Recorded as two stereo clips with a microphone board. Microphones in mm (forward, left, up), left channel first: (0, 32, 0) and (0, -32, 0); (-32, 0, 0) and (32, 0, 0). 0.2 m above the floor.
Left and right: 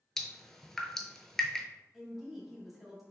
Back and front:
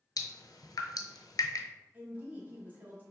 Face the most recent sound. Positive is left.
turn(degrees=-15)